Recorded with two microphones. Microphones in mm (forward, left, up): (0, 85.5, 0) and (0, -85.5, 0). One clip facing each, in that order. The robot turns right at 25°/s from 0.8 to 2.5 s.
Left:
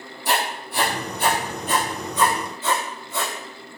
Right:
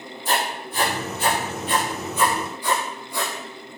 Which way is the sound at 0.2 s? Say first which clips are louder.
Left 1 dB; 65° left (ahead or behind).